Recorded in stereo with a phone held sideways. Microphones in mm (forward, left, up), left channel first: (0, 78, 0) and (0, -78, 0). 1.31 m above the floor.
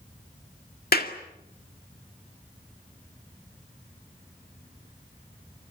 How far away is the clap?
About 2 m.